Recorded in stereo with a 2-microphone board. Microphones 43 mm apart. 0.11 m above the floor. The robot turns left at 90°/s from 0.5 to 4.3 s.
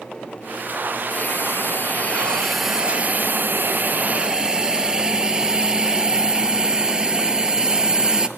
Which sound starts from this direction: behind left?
A hiss, at 1.1 s.